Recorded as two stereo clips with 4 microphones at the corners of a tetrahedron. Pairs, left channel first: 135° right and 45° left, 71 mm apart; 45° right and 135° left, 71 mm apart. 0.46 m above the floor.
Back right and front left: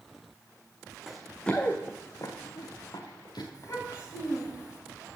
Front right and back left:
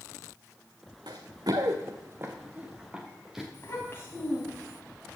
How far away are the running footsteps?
About 1.5 m.